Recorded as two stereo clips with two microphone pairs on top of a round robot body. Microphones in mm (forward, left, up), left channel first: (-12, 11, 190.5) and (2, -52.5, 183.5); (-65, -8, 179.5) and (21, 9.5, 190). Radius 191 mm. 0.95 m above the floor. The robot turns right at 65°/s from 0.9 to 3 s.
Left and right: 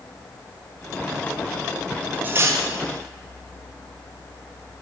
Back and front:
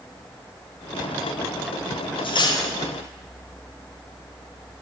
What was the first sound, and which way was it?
Cutlery clinking, 140° right.